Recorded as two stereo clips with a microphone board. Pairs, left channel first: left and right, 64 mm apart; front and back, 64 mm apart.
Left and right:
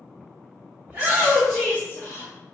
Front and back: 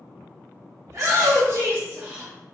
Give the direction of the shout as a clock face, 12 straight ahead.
5 o'clock.